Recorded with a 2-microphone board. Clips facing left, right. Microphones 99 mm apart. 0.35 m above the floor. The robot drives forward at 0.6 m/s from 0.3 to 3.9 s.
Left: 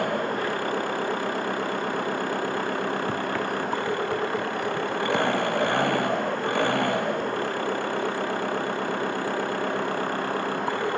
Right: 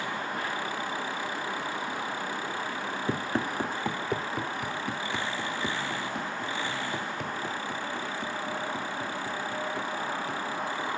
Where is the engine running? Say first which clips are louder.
Left 7 dB; 55° left (ahead or behind); by 11.0 s 60° left (ahead or behind).